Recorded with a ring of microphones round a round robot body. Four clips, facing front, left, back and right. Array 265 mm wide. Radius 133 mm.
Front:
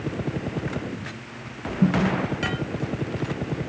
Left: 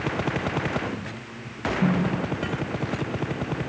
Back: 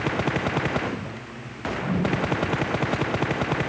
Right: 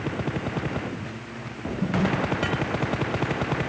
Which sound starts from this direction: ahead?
A snare drum, at 1.8 s.